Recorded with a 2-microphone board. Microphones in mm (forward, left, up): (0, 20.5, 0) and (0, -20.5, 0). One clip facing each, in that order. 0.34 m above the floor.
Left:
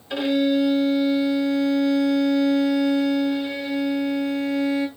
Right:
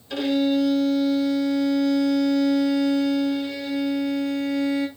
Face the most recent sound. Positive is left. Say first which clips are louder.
# left 1 dB
turn(degrees=20)  # may be behind; listen again after turning